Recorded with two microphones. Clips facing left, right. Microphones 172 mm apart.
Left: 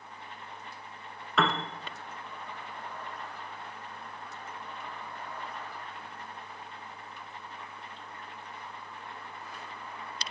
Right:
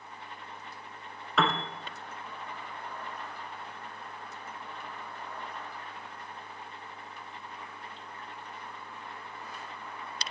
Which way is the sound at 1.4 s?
Centre (ahead or behind).